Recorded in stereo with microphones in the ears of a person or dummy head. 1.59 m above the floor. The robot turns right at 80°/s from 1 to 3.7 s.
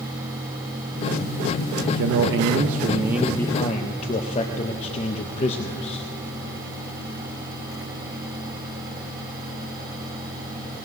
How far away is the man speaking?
About 0.6 m.